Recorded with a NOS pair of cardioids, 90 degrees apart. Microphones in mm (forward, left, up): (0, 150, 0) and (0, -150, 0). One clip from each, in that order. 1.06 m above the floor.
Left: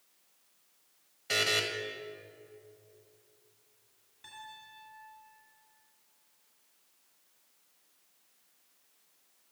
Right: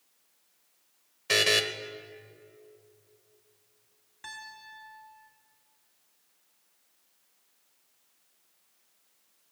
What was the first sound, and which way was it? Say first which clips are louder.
A buzzer: right 5 dB; 35° right.